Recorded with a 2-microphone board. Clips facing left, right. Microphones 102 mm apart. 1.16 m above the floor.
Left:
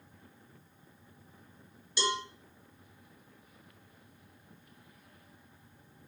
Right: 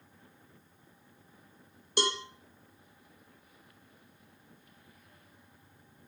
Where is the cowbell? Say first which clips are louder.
Right 1 dB; 55° right (ahead or behind), 2.5 m.